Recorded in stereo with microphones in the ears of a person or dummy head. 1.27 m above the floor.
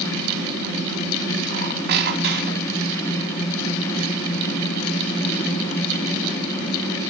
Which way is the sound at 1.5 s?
55° right (ahead or behind).